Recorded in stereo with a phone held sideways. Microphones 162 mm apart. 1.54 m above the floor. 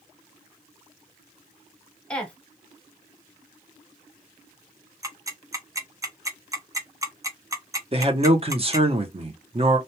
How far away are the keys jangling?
I don't hear keys jangling.